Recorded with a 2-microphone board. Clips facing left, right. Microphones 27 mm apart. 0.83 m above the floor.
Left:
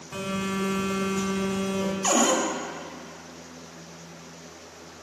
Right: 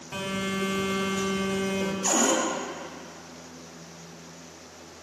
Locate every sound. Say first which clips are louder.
0.1 s a phone buzzing: left 1 dB; 25° right (ahead or behind), 1.0 m
2.0 s a cupboard door: left 2 dB; 30° left (ahead or behind), 0.7 m